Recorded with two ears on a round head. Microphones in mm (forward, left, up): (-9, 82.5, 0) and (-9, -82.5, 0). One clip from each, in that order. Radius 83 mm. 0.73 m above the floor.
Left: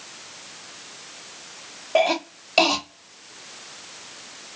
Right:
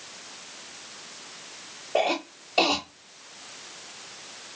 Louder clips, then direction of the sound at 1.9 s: Left 5 dB; 60° left (ahead or behind).